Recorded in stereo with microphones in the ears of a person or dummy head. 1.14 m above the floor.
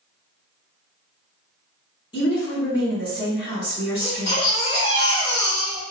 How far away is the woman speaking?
About 1.7 m.